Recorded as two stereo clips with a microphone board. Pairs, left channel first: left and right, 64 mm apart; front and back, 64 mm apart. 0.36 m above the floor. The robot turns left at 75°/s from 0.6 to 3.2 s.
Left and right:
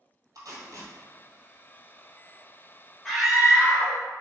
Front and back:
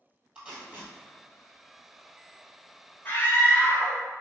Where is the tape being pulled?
110° right, 1.5 m; by 0.9 s 135° right, 1.5 m.